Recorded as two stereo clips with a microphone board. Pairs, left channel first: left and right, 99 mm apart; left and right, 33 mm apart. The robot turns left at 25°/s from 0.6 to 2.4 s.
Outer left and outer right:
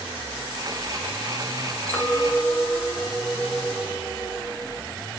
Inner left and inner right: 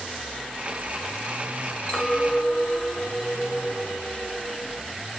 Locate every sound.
1.9 s a clink: 20° left (ahead or behind), 2.5 m; by 4.8 s 30° left (ahead or behind), 2.5 m